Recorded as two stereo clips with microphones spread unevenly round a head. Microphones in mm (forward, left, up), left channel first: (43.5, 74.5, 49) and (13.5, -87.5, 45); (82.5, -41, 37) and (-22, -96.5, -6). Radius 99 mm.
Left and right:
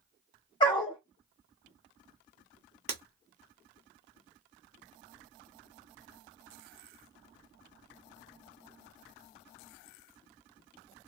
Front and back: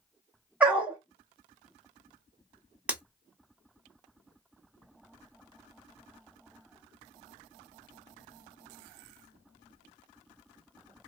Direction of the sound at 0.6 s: 90° left.